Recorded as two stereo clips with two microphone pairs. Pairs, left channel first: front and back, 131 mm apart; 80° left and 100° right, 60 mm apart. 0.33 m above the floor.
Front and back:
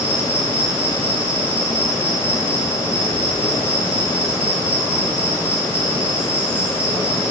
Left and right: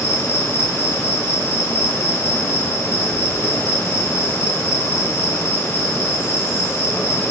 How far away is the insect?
About 3.5 m.